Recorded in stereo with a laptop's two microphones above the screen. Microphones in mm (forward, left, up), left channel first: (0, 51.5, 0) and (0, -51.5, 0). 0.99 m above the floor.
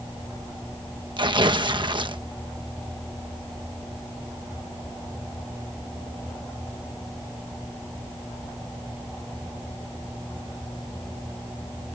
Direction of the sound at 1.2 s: 50° right (ahead or behind).